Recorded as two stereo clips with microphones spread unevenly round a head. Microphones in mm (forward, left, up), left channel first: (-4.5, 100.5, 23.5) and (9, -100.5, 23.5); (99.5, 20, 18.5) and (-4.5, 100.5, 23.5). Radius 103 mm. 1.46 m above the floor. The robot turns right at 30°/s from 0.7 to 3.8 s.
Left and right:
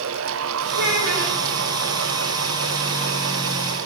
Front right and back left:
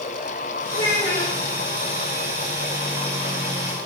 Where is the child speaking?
85° right, 4 m; by 1.4 s 70° right, 4 m.